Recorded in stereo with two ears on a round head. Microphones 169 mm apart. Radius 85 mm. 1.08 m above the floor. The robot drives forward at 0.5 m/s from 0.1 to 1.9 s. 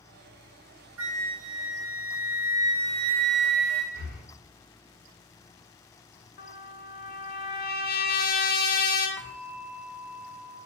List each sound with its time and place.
1.0 s a flute: 85° right, 0.7 m; by 3.8 s 60° right (ahead or behind), 0.8 m
3.9 s breathing: 60° left (ahead or behind), 1.2 m
6.4 s a trumpet: 50° left (ahead or behind), 0.6 m
9.2 s a bell: 15° left (ahead or behind), 0.6 m